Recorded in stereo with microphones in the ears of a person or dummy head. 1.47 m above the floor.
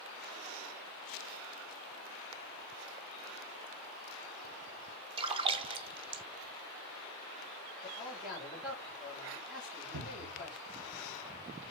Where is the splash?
30° right (ahead or behind), 0.7 m.